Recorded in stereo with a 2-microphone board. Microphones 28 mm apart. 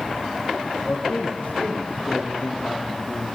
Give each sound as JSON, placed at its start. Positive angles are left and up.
{"t": 0.8, "sound": "a man speaking", "side_deg": 75, "distance_m": 7.0}